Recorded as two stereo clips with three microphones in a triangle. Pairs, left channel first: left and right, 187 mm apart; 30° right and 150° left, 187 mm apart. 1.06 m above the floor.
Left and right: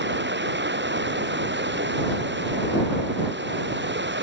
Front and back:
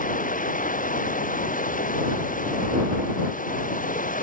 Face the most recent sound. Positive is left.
turn(degrees=-75)